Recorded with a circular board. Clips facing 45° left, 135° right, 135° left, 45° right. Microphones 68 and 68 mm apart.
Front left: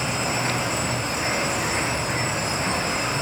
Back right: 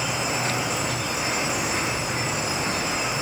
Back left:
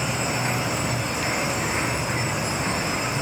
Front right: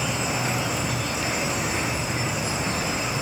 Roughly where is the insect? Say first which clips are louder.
Front left 1 dB, back left 1 dB; left.